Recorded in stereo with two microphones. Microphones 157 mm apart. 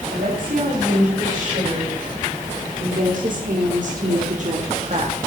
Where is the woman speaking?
60° right (ahead or behind), 4.5 m; by 5.2 s 50° right (ahead or behind), 1.3 m.